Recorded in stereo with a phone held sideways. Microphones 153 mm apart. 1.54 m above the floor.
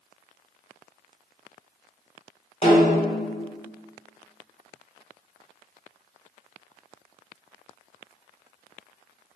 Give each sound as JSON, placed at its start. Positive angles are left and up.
{"t": 2.6, "sound": "a snare drum", "side_deg": 40, "distance_m": 2.0}